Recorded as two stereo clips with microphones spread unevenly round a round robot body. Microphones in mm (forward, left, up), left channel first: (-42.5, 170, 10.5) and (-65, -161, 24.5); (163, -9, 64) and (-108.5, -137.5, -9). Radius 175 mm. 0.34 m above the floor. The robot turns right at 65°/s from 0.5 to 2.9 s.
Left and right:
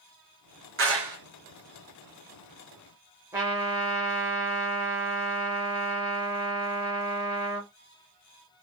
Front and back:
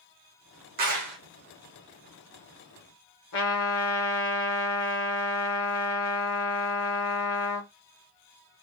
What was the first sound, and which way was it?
A clap, 145° right.